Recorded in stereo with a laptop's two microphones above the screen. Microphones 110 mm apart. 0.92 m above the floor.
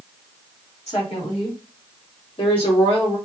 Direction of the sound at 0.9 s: 70° left (ahead or behind).